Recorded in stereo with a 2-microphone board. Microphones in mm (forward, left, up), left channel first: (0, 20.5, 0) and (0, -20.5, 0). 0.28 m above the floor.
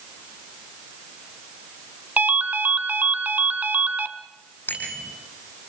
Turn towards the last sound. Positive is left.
turn(degrees=50)  # may be behind; listen again after turning